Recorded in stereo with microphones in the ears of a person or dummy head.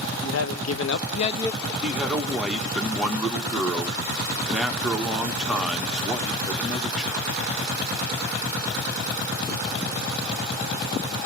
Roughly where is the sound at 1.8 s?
Centre.